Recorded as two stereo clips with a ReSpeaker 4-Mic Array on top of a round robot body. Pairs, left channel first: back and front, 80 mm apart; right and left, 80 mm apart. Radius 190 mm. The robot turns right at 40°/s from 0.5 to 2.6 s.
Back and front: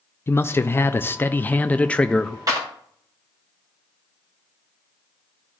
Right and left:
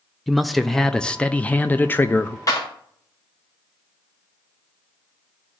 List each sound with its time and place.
0.3 s a man speaking: straight behind, 0.6 m; by 2.4 s 105° right, 0.6 m
2.5 s a clap: 40° right, 2.5 m; by 2.7 s 35° right, 2.5 m